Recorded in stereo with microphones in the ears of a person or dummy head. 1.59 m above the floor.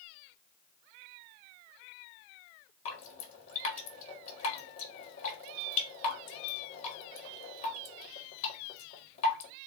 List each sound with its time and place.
2.9 s dripping: 45° left (ahead or behind), 1.6 m